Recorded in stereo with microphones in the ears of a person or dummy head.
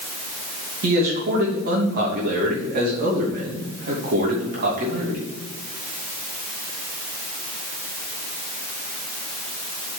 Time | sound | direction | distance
0.8 | a man speaking | 50° right (ahead or behind) | 2.5 m